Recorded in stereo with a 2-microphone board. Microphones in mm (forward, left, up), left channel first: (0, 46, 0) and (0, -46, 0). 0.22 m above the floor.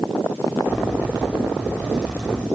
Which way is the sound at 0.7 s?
20° right (ahead or behind).